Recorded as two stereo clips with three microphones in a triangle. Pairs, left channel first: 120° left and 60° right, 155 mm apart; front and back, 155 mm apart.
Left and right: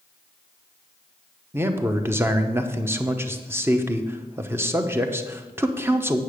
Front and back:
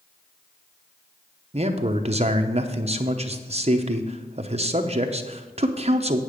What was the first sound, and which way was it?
A man speaking, 135° right.